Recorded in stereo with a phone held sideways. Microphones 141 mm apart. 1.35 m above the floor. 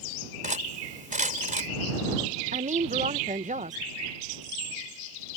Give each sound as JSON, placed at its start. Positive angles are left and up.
{"t": 0.4, "sound": "cutlery clinking", "side_deg": -65}
{"t": 2.5, "sound": "a woman speaking", "side_deg": -65}